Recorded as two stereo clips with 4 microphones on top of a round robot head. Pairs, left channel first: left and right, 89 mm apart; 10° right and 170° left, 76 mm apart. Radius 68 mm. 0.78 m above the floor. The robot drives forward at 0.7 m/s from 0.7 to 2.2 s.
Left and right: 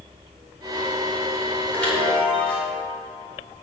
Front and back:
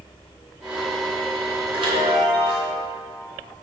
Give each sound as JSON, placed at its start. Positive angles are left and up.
{"t": 1.7, "sound": "a chime", "azimuth_deg": 165, "distance_m": 2.5}